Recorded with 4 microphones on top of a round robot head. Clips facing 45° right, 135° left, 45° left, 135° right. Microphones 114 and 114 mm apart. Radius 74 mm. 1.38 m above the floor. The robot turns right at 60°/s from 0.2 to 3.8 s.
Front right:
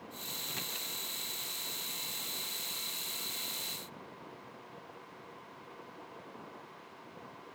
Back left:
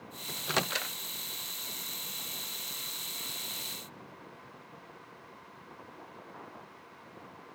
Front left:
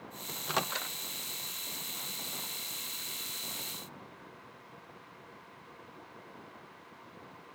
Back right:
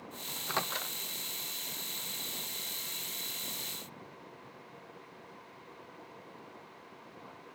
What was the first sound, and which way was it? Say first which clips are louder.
A microwave: back left 16 dB, front left 2 dB; 110° left.